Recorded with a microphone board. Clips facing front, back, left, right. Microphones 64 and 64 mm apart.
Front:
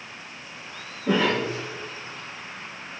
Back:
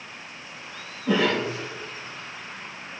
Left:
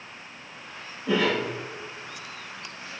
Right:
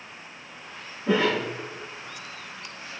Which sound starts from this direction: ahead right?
A cough, at 1.1 s.